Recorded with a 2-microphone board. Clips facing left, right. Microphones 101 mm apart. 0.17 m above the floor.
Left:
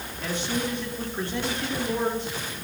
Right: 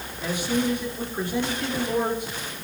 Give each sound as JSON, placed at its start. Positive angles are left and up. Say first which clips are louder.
{"t": 0.2, "sound": "a man speaking", "louder": "right 4 dB", "side_deg": -15, "distance_m": 5.0}